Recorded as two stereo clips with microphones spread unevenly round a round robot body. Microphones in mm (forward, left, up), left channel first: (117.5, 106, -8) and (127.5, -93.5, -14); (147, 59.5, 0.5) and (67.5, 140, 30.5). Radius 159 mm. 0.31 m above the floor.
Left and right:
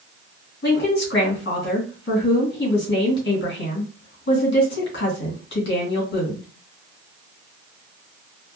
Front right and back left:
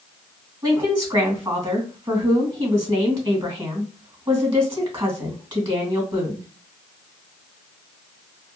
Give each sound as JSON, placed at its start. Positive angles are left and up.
{"t": 0.6, "sound": "a woman speaking", "azimuth_deg": 80, "distance_m": 2.5}